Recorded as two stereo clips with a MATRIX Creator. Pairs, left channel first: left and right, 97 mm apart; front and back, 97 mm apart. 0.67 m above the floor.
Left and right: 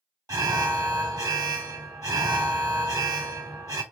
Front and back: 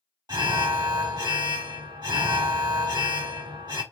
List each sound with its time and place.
0.3 s an alarm: 135° right, 1.2 m